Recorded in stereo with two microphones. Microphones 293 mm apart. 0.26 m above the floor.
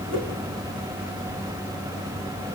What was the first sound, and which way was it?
A whoosh, 45° right (ahead or behind).